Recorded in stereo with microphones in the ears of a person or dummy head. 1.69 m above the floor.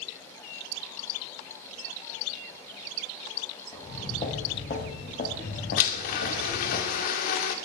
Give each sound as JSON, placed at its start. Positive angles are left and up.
{"t": 3.7, "sound": "footsteps", "side_deg": 35, "distance_m": 5.5}
{"t": 5.8, "sound": "a blender", "side_deg": 55, "distance_m": 2.0}